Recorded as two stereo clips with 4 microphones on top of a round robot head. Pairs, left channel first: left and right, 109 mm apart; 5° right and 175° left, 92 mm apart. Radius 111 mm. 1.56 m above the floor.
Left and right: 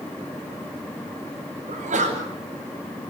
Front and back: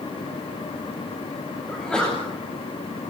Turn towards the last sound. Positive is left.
turn(degrees=-90)